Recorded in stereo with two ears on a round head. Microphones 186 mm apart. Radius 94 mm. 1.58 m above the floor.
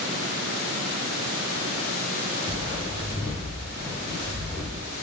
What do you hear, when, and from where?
2.5 s footsteps: 20° right (ahead or behind), 1.6 m; by 4.8 s centre (ahead or behind), 1.9 m